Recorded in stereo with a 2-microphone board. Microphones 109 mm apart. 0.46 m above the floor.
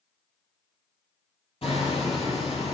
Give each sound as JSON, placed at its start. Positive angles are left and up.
{"t": 1.6, "sound": "hammering", "side_deg": 60, "distance_m": 6.0}